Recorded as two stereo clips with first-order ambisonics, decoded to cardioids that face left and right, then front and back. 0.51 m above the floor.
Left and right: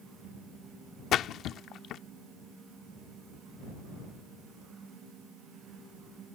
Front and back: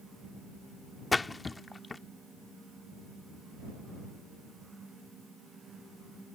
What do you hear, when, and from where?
1.1 s a splash: 75° left